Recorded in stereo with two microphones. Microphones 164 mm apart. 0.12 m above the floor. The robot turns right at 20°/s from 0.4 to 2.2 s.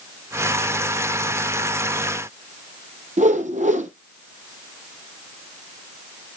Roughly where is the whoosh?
Right.